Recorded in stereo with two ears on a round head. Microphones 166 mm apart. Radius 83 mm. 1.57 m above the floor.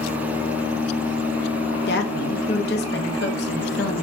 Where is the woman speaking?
60° left (ahead or behind), 0.7 m.